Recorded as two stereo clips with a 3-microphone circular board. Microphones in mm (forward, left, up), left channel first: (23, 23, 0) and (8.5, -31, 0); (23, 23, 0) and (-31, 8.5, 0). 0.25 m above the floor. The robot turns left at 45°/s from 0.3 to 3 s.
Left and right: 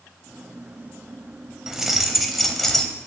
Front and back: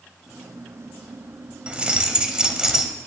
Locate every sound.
1.7 s keys jangling: 165° right, 0.6 m; by 2.9 s 135° left, 0.6 m